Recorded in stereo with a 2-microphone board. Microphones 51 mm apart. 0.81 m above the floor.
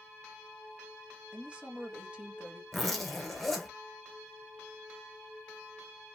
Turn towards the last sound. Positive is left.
turn(degrees=5)  # may be behind; listen again after turning